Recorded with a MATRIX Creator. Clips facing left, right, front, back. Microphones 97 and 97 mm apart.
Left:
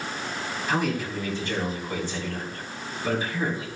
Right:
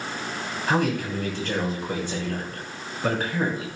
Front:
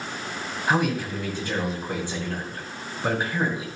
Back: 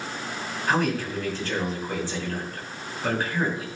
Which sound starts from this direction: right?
A man speaking, at 0.7 s.